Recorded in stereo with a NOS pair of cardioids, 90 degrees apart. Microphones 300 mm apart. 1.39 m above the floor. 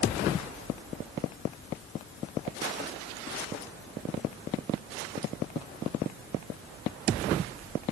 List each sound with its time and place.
Only background noise.